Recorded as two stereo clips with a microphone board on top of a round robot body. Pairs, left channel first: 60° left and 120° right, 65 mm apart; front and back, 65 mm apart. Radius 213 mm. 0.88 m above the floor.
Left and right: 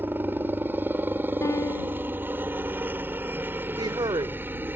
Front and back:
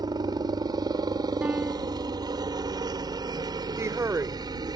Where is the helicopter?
Straight behind.